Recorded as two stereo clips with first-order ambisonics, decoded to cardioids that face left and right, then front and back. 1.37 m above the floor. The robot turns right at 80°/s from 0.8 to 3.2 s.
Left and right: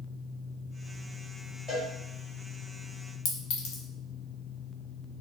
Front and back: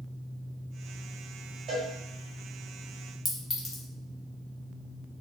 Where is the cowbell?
145° left, 1.4 m; by 1.9 s 160° left, 1.4 m.